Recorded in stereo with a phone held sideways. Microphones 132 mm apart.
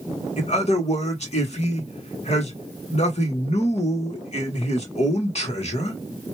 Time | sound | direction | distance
0.4 | a man speaking | 60° left (ahead or behind) | 1.7 m